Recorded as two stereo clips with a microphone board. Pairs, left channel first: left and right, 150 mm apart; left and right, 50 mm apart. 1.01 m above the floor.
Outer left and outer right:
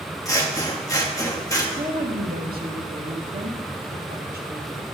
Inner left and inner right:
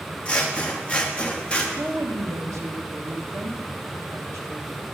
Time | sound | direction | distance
0.2 | scissors | 20° left (ahead or behind) | 1.0 m
1.8 | a woman speaking | 75° right (ahead or behind) | 1.2 m